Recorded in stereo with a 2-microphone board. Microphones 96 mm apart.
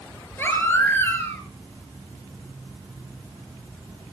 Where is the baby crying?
25° left (ahead or behind), 4 m.